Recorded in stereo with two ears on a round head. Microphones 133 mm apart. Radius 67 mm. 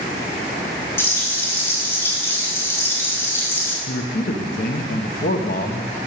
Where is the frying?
15° left (ahead or behind), 3 m.